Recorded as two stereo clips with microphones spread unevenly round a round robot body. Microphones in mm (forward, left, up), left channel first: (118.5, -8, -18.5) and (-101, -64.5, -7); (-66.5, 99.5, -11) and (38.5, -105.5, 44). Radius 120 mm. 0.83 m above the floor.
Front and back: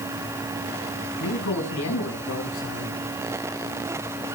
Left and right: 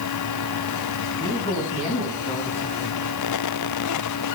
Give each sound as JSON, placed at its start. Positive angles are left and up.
{"t": 1.2, "sound": "a man speaking", "azimuth_deg": 45, "distance_m": 7.0}